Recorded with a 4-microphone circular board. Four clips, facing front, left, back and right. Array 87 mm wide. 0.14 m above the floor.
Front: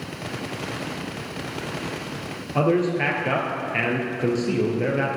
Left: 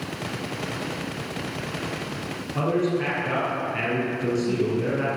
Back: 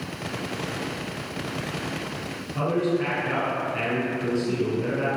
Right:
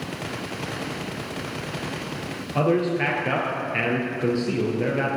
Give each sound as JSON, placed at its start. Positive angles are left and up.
{"t": 2.5, "sound": "a man speaking", "azimuth_deg": -30, "distance_m": 2.5}